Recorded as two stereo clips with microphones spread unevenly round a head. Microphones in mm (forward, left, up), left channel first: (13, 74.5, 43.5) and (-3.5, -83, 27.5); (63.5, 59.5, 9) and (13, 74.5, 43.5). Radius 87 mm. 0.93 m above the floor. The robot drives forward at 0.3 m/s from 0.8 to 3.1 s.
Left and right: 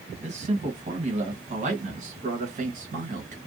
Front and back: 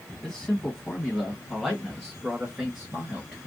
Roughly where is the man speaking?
Right.